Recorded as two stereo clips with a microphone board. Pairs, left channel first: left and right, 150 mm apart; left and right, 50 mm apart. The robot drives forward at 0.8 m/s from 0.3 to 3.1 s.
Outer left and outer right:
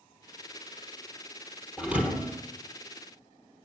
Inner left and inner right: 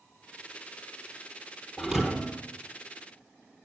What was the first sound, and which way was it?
A thud, 5° right (ahead or behind).